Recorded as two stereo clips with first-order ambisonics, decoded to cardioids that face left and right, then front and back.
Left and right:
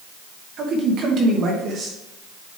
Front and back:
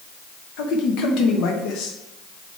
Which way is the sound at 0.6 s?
40° right.